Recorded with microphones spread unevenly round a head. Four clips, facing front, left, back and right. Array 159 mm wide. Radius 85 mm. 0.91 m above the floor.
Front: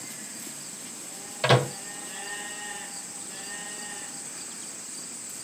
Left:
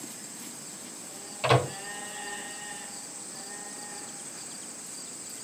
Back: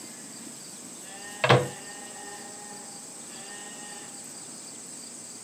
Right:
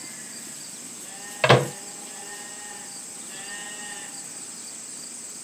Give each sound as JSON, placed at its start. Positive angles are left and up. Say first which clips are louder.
{"t": 1.4, "sound": "a microwave", "louder": "right 6 dB, back 1 dB", "azimuth_deg": -90, "distance_m": 0.7}